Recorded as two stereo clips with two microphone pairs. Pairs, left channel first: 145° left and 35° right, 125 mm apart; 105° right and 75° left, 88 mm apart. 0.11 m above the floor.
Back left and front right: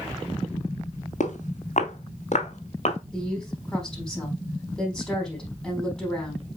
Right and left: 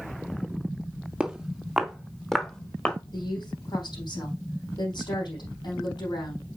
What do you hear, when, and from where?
1.2 s footsteps: 150° left, 2 m; by 3.0 s 175° left, 2.5 m
3.1 s a woman speaking: 135° right, 4.5 m